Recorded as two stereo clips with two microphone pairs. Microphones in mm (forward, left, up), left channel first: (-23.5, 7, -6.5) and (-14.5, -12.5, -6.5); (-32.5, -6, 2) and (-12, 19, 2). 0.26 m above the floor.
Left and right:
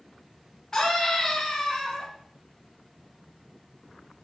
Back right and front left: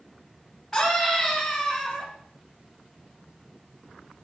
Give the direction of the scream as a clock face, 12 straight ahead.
7 o'clock.